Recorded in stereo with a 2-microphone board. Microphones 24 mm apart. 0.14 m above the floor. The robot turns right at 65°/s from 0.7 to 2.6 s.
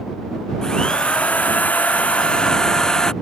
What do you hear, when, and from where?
0.6 s a drill: 25° left; by 3.1 s 150° left